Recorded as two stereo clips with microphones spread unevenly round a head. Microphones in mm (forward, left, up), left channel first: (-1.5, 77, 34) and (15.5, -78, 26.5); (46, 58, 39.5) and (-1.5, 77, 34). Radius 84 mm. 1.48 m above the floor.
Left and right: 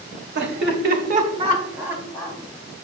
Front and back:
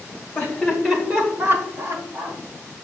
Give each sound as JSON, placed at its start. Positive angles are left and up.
{"t": 0.3, "sound": "laughter", "azimuth_deg": -90, "distance_m": 1.7}